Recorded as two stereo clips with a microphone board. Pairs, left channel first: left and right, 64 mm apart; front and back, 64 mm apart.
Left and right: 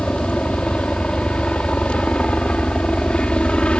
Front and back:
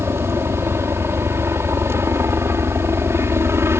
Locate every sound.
0.0 s a helicopter: 155° left